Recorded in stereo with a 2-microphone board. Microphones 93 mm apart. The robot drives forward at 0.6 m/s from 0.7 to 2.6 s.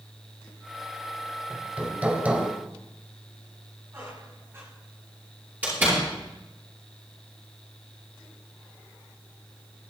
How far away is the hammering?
About 1.5 m.